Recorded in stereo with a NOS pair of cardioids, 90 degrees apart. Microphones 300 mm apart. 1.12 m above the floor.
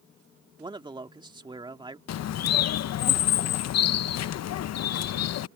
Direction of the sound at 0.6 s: 15° right.